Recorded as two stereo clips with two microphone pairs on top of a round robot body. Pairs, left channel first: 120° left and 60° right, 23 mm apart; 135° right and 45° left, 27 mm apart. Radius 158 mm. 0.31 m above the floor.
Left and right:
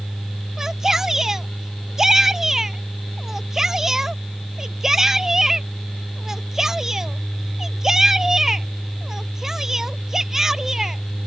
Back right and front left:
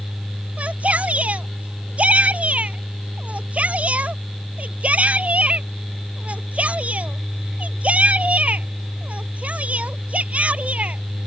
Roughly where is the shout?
Ahead.